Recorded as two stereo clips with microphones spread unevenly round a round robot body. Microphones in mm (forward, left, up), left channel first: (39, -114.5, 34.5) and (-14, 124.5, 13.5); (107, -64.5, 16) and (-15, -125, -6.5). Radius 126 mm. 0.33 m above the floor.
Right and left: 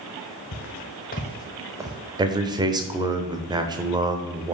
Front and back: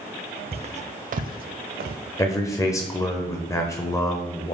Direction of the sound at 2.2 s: 85° left.